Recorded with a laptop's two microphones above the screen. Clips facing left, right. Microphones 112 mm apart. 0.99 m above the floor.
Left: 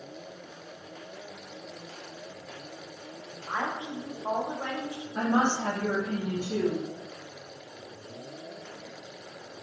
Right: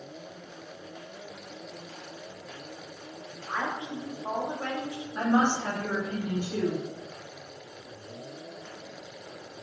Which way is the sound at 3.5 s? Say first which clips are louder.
Even; 20° left (ahead or behind).